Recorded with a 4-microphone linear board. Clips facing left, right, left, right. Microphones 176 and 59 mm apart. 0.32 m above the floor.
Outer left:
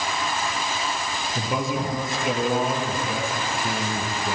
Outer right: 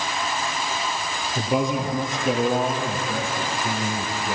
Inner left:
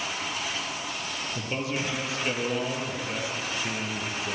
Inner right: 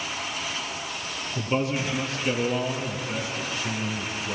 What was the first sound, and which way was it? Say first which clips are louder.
A man speaking: outer right 4 dB, inner right 6 dB; centre (ahead or behind).